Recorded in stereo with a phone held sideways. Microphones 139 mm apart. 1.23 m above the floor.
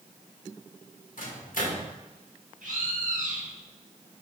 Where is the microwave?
80° left, 1.5 m.